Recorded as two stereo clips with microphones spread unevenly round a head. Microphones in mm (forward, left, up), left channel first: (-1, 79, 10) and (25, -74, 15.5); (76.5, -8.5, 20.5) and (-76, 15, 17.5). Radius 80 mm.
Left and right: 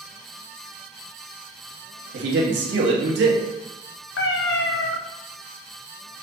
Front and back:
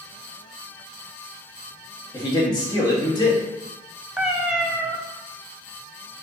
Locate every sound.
2.1 s a man speaking: 75° right, 1.4 m
4.2 s a cat meowing: 85° left, 0.6 m